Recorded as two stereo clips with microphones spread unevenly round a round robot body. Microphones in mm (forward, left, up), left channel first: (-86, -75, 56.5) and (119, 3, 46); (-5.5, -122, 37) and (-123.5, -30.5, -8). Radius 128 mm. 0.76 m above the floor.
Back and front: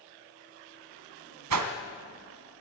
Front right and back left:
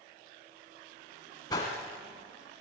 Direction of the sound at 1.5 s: 35° left.